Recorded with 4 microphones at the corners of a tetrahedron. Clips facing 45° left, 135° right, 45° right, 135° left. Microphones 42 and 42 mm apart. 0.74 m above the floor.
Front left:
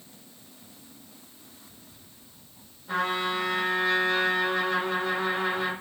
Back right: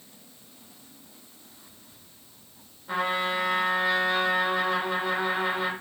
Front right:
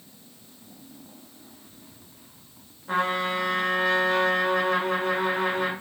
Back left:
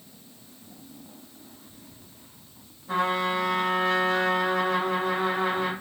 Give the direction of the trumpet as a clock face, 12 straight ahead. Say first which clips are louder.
Back right 1 dB, even; 2 o'clock.